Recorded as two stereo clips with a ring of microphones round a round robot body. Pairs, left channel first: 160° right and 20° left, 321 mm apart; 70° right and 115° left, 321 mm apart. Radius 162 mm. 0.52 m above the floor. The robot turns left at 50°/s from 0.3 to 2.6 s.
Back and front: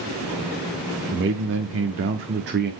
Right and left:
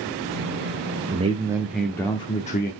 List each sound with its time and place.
1.1 s a man speaking: 55° left, 0.8 m; by 2.7 s 20° right, 0.8 m